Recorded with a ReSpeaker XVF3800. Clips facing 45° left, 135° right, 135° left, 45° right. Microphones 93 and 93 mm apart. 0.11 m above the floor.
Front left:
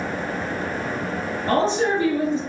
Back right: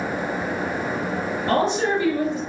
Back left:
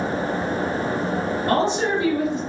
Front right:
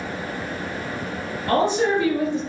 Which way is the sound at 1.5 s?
80° left.